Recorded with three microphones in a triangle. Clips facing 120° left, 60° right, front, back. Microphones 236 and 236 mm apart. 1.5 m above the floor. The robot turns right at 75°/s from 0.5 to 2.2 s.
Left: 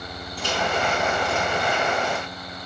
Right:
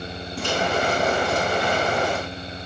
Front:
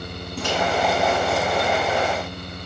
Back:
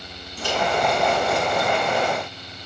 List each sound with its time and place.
0.4 s a microwave: 25° right, 8.5 m; by 0.6 s 20° right, 8.5 m